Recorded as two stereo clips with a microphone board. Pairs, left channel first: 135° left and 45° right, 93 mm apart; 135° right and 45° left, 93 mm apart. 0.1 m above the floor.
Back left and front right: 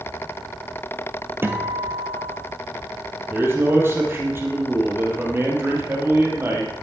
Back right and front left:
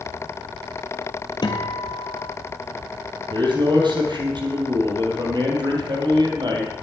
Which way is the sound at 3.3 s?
15° left.